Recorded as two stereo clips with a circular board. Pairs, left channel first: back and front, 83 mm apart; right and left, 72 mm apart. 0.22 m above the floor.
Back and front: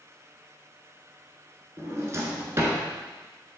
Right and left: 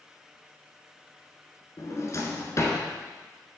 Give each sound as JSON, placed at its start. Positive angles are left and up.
{"t": 1.8, "sound": "a drawer", "azimuth_deg": -50, "distance_m": 1.5}